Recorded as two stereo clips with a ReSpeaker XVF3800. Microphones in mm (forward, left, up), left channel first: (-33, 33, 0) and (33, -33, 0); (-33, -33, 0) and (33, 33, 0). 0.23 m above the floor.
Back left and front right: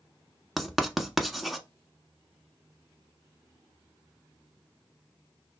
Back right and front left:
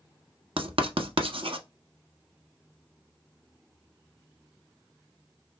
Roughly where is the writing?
Ahead left.